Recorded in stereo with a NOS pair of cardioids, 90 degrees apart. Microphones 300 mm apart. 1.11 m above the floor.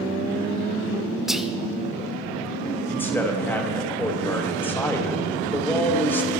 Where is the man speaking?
5° left, 1.1 m.